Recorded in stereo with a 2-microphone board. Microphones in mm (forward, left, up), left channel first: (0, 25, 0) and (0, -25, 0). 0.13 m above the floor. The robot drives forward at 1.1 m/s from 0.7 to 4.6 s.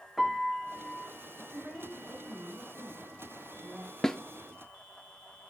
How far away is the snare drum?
About 0.5 m.